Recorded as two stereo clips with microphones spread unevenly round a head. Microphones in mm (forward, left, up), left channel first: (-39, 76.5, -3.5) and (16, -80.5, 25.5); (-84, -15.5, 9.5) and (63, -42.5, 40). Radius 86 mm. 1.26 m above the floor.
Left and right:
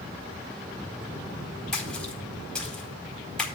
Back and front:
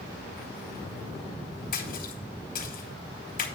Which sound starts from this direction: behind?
A splash, at 1.7 s.